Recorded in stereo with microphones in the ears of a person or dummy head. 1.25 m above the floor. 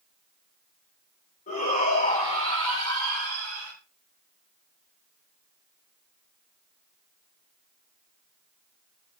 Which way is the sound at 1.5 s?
35° left (ahead or behind).